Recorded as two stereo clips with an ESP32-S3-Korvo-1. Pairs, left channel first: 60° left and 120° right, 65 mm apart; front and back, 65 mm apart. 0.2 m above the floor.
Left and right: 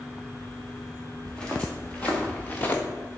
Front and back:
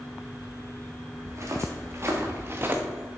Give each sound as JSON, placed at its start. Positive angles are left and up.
{"t": 1.2, "sound": "footsteps", "azimuth_deg": 130, "distance_m": 3.5}